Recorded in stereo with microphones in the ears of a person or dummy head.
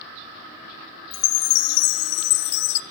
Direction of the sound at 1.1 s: 75° left (ahead or behind).